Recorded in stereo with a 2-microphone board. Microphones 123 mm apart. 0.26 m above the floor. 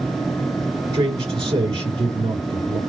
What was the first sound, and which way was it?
A man speaking, 45° right (ahead or behind).